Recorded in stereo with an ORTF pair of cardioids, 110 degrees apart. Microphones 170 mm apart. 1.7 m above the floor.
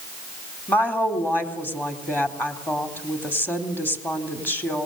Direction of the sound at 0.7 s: 10° left.